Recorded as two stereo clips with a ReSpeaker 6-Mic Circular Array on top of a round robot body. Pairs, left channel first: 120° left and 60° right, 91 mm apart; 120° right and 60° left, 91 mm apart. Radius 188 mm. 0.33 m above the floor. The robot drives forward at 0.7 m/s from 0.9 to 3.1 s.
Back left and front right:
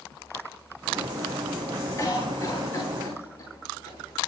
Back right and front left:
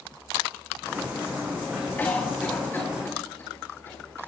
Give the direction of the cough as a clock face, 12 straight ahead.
6 o'clock.